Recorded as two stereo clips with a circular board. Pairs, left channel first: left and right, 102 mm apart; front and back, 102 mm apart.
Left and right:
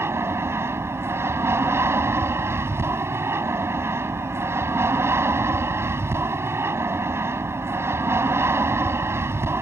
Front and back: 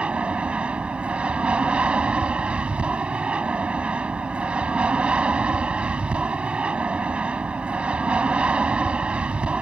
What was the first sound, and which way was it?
An aircraft, 115° right.